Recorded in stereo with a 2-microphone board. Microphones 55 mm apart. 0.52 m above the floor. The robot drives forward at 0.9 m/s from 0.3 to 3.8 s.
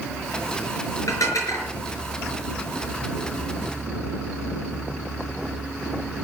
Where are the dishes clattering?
75° left (ahead or behind), 5 m; by 1.7 s 80° left, 5 m.